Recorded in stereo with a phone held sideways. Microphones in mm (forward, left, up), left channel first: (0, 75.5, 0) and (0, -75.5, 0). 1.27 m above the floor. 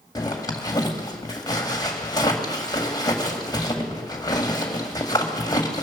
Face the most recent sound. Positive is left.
turn(degrees=25)  # may be behind; listen again after turning